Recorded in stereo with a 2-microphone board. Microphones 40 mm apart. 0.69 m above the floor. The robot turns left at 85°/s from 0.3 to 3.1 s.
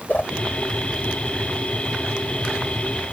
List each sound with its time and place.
0.1 s a whoosh: 40° left (ahead or behind)